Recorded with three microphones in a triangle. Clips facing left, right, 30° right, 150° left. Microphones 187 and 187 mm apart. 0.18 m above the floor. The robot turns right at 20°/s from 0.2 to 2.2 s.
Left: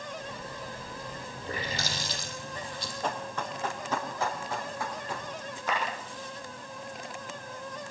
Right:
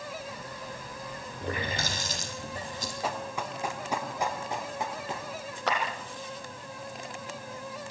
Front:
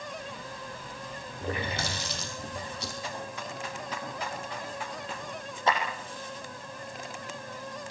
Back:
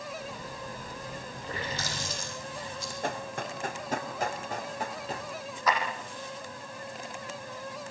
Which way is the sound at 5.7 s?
95° right.